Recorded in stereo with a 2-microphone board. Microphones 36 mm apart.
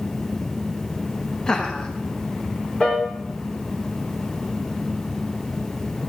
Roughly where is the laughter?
Left.